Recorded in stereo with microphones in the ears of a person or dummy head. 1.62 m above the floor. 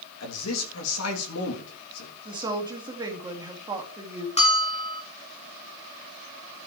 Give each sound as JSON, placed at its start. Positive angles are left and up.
{"t": 0.2, "sound": "a man speaking", "side_deg": 85, "distance_m": 3.5}
{"t": 2.2, "sound": "a woman speaking", "side_deg": -20, "distance_m": 2.5}
{"t": 4.4, "sound": "a bell", "side_deg": 35, "distance_m": 3.0}